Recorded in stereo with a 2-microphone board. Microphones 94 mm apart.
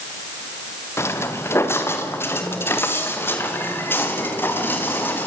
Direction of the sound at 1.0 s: 30° left (ahead or behind).